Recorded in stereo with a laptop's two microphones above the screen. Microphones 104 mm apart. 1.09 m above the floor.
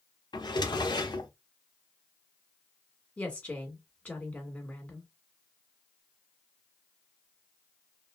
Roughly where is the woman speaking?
Centre.